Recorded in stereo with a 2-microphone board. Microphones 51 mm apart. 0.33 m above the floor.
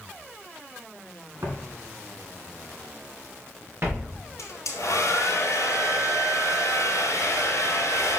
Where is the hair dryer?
80° left, 1.7 m.